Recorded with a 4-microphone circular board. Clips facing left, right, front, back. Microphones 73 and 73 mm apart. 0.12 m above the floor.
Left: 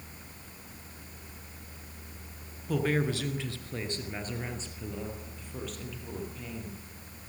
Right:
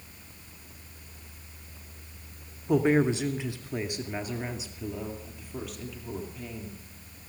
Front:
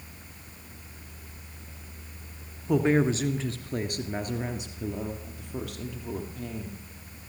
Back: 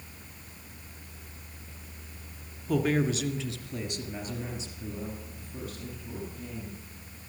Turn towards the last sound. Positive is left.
turn(degrees=0)